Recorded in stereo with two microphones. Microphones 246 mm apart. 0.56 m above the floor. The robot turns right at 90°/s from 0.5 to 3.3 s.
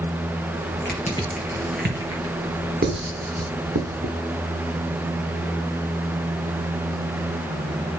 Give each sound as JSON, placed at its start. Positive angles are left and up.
{"t": 0.8, "sound": "crushing", "side_deg": 45, "distance_m": 3.5}
{"t": 2.8, "sound": "writing", "side_deg": -40, "distance_m": 1.5}